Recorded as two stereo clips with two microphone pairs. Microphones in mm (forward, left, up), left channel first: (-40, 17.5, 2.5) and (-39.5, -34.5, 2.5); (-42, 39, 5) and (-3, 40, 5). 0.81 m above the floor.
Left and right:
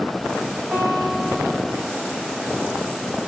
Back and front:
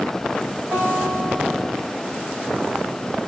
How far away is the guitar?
About 4 m.